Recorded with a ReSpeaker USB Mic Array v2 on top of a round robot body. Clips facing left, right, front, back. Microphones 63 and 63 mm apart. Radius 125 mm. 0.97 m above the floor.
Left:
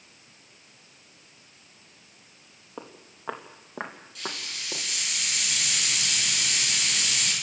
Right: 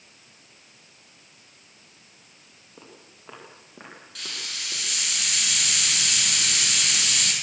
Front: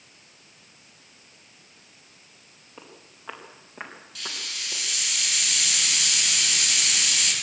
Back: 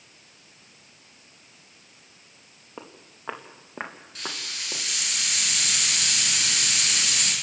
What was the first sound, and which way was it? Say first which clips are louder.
Footsteps: left 6 dB, back 4 dB; 120° left.